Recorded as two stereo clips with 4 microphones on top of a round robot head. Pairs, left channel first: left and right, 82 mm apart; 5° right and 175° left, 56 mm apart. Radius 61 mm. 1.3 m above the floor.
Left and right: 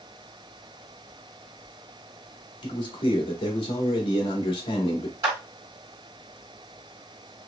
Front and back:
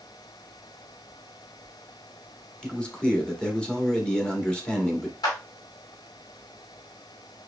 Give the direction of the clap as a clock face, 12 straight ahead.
1 o'clock.